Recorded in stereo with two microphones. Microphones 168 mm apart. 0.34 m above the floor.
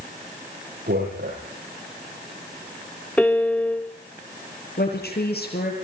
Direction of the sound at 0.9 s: 70° right (ahead or behind).